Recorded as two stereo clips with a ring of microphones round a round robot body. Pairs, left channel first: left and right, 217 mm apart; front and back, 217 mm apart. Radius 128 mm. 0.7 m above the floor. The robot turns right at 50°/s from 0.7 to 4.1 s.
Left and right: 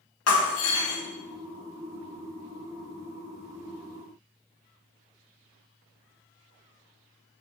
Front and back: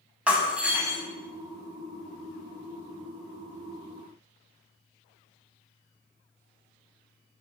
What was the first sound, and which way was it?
Breaking glass, 95° left.